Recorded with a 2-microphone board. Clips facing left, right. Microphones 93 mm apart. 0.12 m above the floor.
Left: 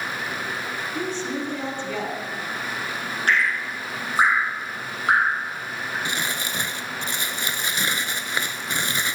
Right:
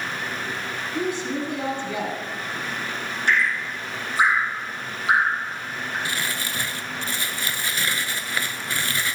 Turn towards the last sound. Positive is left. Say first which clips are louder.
# left 1 dB
turn(degrees=20)  # may be behind; listen again after turning